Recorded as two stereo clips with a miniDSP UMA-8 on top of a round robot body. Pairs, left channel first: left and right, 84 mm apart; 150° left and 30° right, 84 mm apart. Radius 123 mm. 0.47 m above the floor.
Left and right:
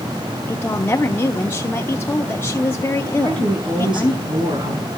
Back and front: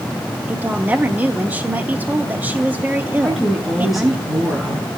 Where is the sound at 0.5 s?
30° left, 1.1 m.